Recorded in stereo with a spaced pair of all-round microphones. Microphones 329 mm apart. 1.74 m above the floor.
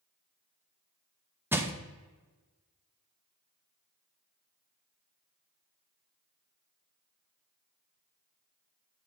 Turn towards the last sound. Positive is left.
turn(degrees=-5)  # may be behind; listen again after turning